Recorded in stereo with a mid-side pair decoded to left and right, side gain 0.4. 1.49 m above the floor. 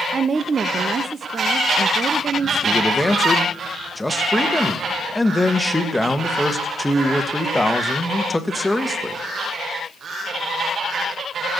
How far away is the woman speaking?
About 0.5 m.